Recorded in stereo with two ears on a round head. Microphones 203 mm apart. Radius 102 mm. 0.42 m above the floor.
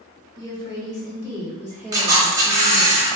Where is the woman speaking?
20° left (ahead or behind), 1.2 m; by 2.9 s centre (ahead or behind), 1.2 m.